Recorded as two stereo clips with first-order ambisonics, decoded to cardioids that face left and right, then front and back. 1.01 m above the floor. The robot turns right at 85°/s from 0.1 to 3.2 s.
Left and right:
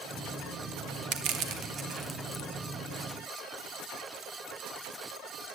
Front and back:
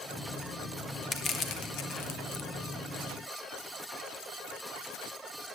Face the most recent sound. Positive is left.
turn(degrees=100)